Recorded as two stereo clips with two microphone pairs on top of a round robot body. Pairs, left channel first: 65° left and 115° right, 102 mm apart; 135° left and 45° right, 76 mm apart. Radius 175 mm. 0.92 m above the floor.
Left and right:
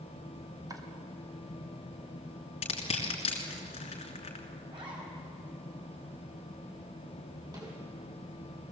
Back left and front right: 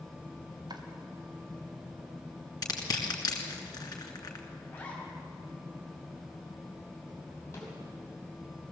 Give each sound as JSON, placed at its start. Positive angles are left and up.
{"t": 0.7, "sound": "chopping", "azimuth_deg": -65, "distance_m": 2.5}
{"t": 2.6, "sound": "crushing", "azimuth_deg": 90, "distance_m": 2.0}
{"t": 4.7, "sound": "a zipper", "azimuth_deg": -155, "distance_m": 6.0}
{"t": 7.5, "sound": "a snare drum", "azimuth_deg": -170, "distance_m": 6.0}